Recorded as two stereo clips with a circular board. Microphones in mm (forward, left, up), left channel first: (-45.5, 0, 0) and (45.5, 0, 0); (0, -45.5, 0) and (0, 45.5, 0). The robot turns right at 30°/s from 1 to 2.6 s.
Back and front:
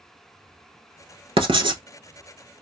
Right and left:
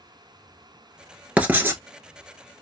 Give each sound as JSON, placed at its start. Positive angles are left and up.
{"t": 1.4, "sound": "writing", "azimuth_deg": 15, "distance_m": 0.6}